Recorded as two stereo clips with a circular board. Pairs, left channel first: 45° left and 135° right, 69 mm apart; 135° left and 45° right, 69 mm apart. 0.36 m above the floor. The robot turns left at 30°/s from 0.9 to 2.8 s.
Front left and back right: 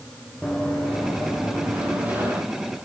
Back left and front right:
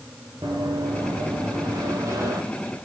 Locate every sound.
0.4 s running footsteps: 40° right, 6 m; by 2.4 s 75° right, 8 m